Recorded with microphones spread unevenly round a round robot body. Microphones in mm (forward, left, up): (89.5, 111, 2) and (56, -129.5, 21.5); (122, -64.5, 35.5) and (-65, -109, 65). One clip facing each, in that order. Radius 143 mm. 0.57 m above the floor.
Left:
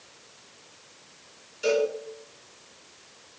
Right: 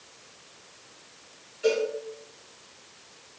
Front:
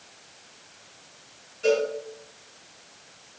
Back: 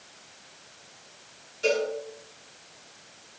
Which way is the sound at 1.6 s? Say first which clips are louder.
Left 1 dB, front 3 dB; 130° left.